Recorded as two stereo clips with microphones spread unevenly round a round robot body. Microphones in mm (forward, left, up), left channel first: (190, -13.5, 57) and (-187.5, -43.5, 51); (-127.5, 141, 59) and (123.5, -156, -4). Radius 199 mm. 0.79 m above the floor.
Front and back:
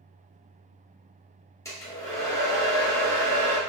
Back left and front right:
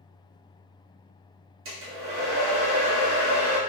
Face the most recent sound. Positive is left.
turn(degrees=-75)